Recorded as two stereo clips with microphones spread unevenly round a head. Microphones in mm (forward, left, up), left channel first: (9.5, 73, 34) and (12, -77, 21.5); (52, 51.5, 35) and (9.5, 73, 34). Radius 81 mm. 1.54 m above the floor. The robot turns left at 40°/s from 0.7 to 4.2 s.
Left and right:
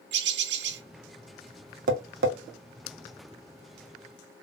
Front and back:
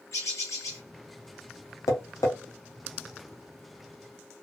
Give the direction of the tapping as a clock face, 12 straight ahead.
2 o'clock.